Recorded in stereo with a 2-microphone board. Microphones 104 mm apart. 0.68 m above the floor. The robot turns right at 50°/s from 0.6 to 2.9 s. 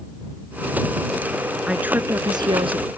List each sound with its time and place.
1.7 s a woman speaking: 175° right; by 2.9 s 110° right